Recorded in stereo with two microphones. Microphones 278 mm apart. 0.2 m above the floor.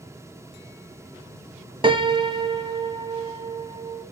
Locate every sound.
1.8 s a piano: 20° right (ahead or behind), 0.9 m